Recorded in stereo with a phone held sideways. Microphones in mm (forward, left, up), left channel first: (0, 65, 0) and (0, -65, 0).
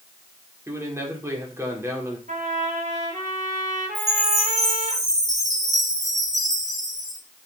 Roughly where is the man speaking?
Centre.